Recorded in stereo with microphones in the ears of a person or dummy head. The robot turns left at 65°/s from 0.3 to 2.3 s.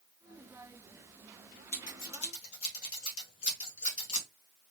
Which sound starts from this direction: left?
Scissors, at 1.7 s.